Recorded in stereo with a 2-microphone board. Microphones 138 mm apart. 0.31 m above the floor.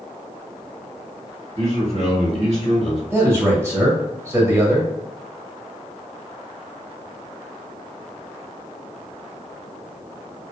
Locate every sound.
1.6 s a man speaking: 50° right (ahead or behind), 1.9 m
3.1 s a man speaking: 20° right (ahead or behind), 1.2 m